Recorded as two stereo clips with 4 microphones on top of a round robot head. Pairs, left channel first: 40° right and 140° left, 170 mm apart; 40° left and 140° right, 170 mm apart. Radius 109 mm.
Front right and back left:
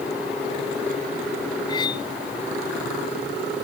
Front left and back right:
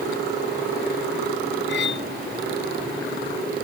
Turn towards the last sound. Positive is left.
turn(degrees=25)